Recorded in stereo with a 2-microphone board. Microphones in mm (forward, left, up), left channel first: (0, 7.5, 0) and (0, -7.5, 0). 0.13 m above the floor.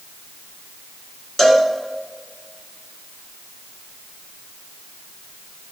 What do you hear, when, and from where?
1.4 s a cowbell: 30° left (ahead or behind), 1.9 m